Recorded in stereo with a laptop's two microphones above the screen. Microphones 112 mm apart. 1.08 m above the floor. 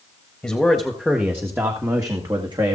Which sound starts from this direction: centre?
A man speaking, at 0.4 s.